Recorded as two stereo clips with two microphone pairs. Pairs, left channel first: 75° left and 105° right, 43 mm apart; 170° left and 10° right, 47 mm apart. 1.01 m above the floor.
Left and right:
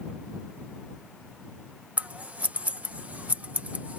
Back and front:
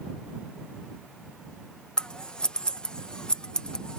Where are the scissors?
130° right.